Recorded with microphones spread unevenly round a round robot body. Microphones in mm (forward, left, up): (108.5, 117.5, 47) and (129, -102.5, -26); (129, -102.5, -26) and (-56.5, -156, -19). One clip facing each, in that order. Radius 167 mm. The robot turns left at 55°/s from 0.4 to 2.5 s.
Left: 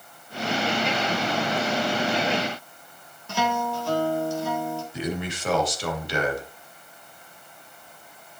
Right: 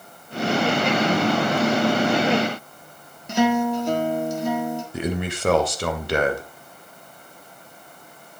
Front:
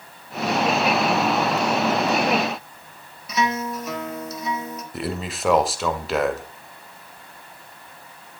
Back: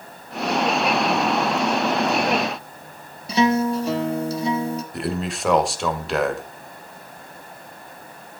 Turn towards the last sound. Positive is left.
turn(degrees=-70)